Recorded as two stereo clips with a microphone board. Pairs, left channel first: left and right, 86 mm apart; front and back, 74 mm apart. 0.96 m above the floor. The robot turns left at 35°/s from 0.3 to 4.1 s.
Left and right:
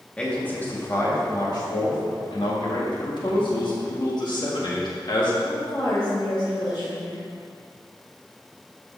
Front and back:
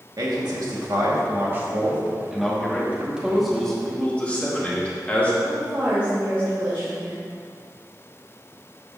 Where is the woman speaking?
115° left, 3 m.